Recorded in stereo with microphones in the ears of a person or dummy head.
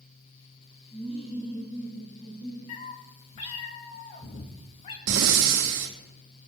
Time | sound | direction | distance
0.9 | laughter | 35° left (ahead or behind) | 5.5 m
2.7 | a cat meowing | 30° left (ahead or behind) | 1.0 m
5.1 | breathing | 65° right (ahead or behind) | 1.1 m